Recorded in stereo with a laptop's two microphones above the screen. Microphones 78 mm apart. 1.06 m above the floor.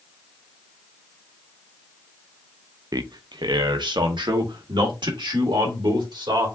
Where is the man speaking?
55° right (ahead or behind), 0.5 m; by 6.5 s 80° right, 2.5 m.